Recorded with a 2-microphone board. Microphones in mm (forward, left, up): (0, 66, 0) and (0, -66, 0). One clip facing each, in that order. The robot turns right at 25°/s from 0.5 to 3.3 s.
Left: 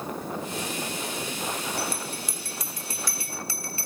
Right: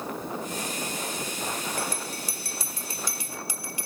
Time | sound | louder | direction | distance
1.8 | a bell | left 1 dB | 45° right (ahead or behind) | 2.5 m